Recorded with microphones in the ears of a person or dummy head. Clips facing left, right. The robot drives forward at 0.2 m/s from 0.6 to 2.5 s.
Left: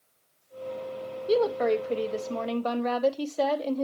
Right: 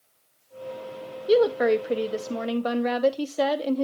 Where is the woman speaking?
20° right (ahead or behind), 0.6 m; by 3.8 s 15° right (ahead or behind), 0.8 m.